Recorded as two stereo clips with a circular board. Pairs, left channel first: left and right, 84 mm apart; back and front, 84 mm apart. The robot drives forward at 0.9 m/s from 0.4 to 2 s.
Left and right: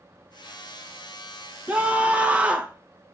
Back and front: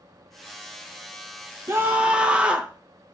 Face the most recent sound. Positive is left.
turn(degrees=-55)